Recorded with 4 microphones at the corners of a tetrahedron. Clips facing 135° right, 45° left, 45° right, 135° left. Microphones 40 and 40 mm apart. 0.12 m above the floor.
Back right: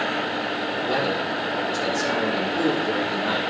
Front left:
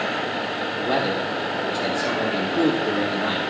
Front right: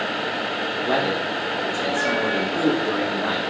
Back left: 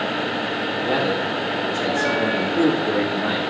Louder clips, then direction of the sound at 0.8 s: Front left 2 dB, even; 20° right.